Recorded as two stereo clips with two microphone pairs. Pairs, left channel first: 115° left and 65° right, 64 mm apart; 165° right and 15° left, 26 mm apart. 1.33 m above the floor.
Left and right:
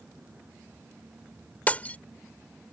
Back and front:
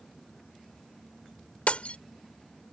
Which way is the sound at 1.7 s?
Straight behind.